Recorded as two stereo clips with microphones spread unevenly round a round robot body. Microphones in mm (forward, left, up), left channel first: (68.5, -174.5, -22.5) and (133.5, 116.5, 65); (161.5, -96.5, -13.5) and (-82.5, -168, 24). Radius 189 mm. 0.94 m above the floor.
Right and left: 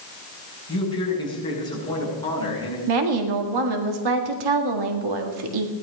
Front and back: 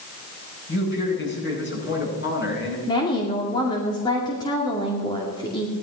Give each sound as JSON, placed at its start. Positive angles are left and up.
{"t": 0.7, "sound": "a man speaking", "azimuth_deg": -25, "distance_m": 8.0}
{"t": 2.9, "sound": "a woman speaking", "azimuth_deg": 95, "distance_m": 2.0}